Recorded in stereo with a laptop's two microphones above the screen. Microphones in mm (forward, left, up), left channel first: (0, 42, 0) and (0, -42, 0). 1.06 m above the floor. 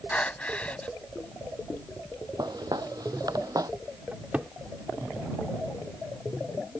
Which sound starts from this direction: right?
Footsteps, at 2.4 s.